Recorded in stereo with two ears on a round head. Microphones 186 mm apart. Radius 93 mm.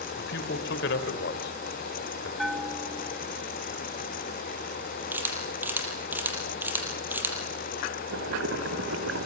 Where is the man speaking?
60° left (ahead or behind), 3 m.